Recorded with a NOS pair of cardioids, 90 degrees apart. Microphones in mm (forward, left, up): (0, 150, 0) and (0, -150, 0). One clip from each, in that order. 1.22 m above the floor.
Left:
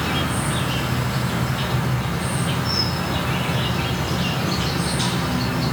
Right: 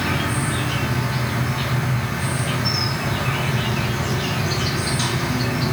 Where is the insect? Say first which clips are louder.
Even; 40° right, 1.8 m.